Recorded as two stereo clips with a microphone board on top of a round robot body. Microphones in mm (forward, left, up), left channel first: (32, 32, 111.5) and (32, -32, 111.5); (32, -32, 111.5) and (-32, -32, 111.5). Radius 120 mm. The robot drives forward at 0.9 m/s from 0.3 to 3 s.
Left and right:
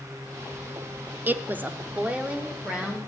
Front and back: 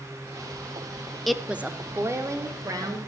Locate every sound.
1.3 s a woman speaking: 85° right, 0.9 m; by 3.1 s 165° right, 1.7 m